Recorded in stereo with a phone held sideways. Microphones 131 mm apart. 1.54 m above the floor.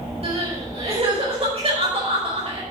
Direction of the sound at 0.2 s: 50° right (ahead or behind).